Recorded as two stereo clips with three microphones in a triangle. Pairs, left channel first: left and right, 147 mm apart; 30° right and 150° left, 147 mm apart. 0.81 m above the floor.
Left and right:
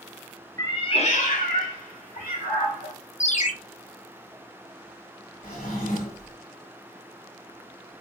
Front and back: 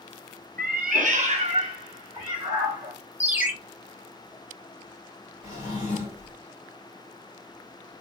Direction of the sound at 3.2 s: 75° left.